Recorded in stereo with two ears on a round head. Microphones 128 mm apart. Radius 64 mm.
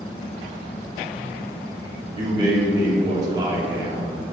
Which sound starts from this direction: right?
A man speaking, at 2.1 s.